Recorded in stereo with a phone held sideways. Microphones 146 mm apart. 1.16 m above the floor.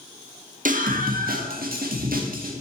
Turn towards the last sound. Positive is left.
turn(degrees=-70)  # may be behind; listen again after turning